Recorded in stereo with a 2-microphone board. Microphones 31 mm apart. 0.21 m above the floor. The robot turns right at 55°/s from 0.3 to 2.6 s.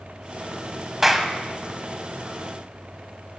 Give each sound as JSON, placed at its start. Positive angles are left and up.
{"t": 1.0, "sound": "a clap", "side_deg": -10, "distance_m": 1.0}